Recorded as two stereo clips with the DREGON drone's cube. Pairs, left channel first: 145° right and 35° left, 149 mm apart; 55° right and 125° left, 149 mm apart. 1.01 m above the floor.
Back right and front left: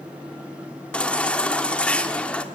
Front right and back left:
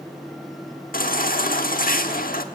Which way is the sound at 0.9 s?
65° right.